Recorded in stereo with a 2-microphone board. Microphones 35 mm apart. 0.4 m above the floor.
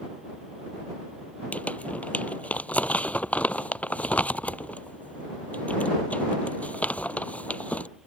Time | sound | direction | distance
1.5 | crumpling | 40° left (ahead or behind) | ?